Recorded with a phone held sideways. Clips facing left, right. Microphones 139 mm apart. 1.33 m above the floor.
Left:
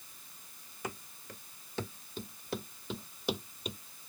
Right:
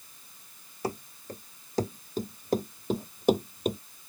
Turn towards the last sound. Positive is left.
turn(degrees=-50)  # may be behind; listen again after turning